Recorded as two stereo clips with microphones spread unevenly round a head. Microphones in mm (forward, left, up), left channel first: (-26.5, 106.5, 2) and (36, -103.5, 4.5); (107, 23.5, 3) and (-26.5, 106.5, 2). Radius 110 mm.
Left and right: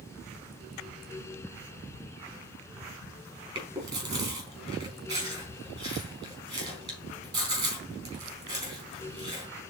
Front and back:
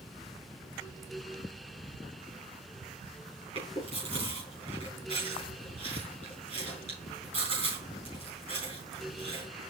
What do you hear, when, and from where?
3.5 s chewing: 145° right, 4 m